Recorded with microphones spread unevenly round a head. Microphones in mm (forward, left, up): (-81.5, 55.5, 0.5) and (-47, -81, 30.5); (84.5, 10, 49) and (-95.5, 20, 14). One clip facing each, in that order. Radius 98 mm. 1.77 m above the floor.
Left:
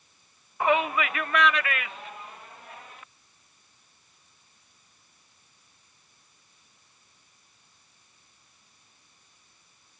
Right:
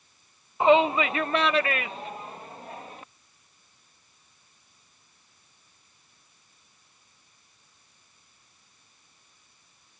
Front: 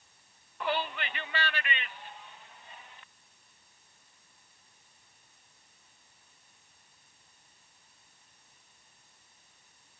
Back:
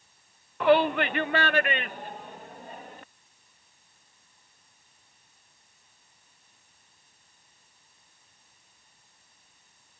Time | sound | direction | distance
0.6 | a shout | 145° right | ?